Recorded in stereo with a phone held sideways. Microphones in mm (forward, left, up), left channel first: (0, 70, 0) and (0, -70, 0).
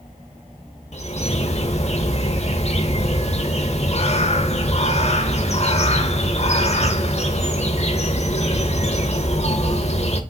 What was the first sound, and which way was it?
A bird, 50° left (ahead or behind).